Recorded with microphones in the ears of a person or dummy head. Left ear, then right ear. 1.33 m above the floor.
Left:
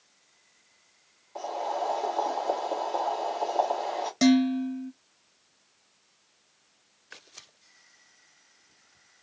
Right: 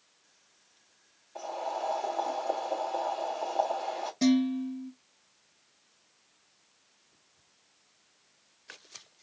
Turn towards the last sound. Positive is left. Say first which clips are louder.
# left 4 dB
turn(degrees=45)  # may be behind; listen again after turning